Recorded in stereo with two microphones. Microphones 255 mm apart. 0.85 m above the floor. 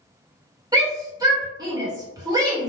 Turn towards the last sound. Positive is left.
turn(degrees=-15)  # may be behind; listen again after turning